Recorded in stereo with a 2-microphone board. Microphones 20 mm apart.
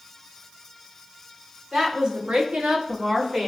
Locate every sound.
1.7 s a woman speaking: 50° right (ahead or behind), 1.3 m; by 3.5 s 45° right (ahead or behind), 1.2 m